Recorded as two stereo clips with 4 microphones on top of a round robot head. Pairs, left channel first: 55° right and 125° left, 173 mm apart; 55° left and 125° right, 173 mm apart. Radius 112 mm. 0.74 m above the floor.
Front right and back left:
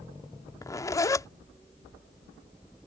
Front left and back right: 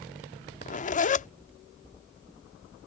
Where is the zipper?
15° left.